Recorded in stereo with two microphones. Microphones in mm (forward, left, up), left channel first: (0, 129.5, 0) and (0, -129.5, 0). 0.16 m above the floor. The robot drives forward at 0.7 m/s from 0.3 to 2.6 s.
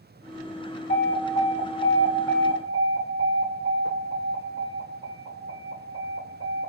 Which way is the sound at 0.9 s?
30° left (ahead or behind).